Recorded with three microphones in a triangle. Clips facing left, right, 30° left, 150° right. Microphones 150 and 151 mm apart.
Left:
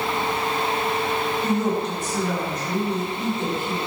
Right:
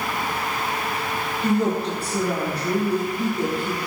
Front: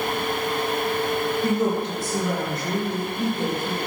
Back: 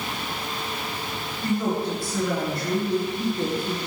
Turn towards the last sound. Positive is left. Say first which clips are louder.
# right 4 dB, back 2 dB
turn(degrees=-35)